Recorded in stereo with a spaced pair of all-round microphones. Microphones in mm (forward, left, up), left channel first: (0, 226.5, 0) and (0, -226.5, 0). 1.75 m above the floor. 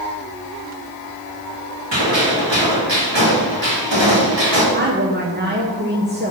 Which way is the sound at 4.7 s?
25° right (ahead or behind).